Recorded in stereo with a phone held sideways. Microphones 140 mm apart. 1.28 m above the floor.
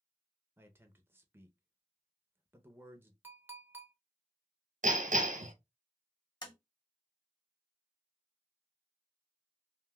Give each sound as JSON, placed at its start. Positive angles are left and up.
{"t": 0.6, "sound": "a man speaking", "side_deg": -15, "distance_m": 0.6}
{"t": 3.2, "sound": "a clink", "side_deg": -15, "distance_m": 0.7}
{"t": 4.8, "sound": "hammering", "side_deg": -70, "distance_m": 1.0}
{"t": 6.4, "sound": "tapping", "side_deg": 30, "distance_m": 1.1}